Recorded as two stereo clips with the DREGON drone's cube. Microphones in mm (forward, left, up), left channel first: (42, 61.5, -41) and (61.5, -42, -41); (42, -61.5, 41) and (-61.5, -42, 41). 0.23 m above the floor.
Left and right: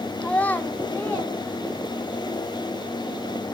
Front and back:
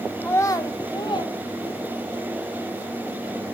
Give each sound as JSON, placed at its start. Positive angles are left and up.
{"t": 0.2, "sound": "a child speaking", "azimuth_deg": 40, "distance_m": 0.5}